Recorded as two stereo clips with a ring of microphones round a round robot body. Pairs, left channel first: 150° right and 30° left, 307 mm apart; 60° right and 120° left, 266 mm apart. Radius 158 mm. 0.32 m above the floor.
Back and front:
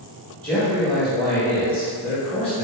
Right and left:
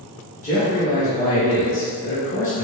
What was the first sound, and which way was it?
A man speaking, 70° right.